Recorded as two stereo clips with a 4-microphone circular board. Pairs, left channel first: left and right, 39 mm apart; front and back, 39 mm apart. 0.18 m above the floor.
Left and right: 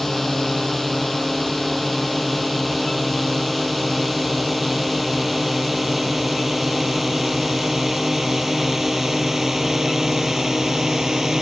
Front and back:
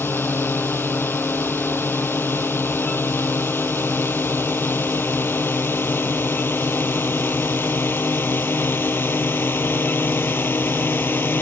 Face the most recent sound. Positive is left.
turn(degrees=-10)